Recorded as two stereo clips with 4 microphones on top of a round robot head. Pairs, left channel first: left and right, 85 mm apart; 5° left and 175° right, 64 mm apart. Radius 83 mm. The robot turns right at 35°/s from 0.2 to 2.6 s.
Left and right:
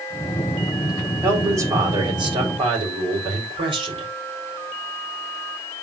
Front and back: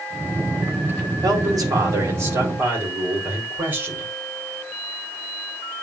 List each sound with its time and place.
1.2 s a man speaking: 160° right, 3.5 m; by 4.1 s 110° right, 3.5 m